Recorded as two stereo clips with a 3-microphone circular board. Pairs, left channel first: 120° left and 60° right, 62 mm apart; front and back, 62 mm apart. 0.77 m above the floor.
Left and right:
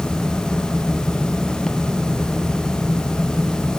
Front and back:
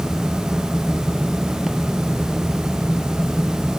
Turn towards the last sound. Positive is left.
No sound to turn to.